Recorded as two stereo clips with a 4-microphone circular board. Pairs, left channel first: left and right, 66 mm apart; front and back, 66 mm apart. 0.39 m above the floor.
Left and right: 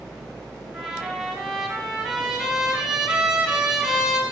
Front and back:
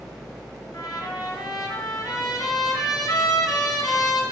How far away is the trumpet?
About 2.5 m.